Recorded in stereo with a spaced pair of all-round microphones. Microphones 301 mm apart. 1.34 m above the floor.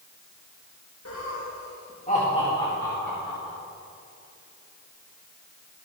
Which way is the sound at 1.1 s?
55° left (ahead or behind).